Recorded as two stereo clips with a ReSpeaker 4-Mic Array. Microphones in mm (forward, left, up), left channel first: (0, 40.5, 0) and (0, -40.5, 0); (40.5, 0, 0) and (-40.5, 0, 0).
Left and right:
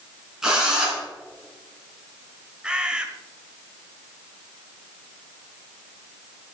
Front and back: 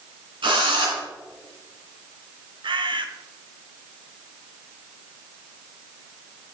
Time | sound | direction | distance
0.4 | a drill | 170° right | 3 m
2.6 | a bird | 170° right | 0.9 m